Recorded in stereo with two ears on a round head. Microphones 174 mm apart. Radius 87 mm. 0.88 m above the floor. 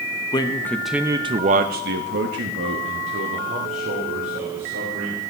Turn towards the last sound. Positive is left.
turn(degrees=-65)  # may be behind; listen again after turning